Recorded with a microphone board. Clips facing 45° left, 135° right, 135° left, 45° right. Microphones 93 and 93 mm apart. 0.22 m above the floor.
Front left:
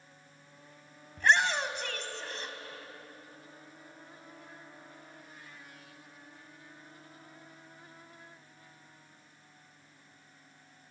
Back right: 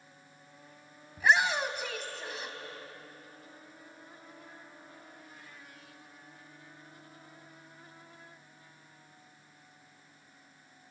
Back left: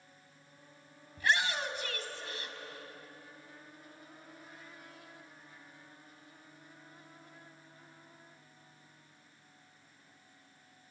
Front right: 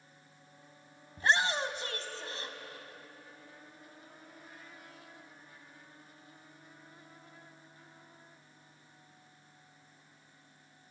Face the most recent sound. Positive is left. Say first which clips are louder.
# even, front right 2 dB
turn(degrees=-55)